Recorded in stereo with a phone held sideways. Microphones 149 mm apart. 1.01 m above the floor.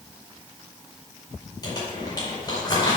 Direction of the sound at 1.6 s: 30° left (ahead or behind).